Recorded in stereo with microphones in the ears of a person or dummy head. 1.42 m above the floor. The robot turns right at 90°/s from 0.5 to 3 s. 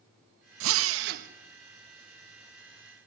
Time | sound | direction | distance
0.6 | a drill | 105° right | 1.1 m